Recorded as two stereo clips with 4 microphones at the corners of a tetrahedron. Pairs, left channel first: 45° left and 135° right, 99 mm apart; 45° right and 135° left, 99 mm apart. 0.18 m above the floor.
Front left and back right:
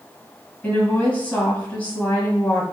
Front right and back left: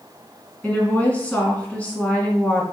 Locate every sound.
0.6 s a woman speaking: 5° left, 1.4 m